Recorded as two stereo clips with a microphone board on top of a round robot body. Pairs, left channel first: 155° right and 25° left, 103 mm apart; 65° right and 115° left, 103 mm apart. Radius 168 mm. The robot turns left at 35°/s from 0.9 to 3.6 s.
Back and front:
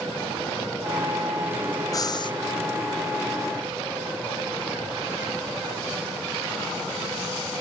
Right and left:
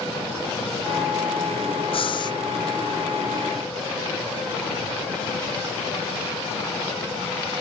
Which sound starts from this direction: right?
Breathing, at 1.9 s.